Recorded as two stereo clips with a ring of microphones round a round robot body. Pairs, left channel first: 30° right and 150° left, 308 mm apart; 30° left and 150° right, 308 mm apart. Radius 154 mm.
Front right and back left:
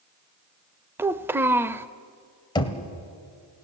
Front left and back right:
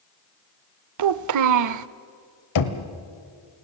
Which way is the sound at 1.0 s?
130° right.